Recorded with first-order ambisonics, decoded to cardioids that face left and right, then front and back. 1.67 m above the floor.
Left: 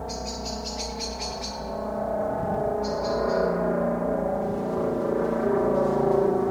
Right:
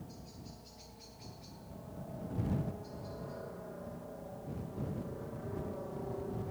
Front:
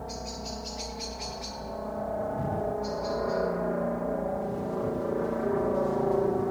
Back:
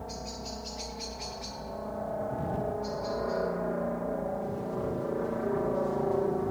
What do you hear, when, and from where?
0.0 s a helicopter: 80° left